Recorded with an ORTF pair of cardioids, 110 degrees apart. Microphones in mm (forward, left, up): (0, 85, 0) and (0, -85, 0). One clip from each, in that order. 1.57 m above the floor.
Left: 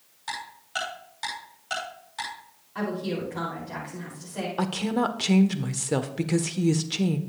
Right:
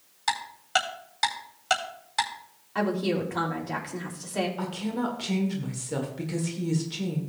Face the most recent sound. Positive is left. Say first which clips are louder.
# left 5 dB
turn(degrees=45)